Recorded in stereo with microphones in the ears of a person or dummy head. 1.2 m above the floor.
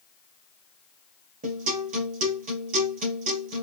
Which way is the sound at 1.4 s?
40° right (ahead or behind).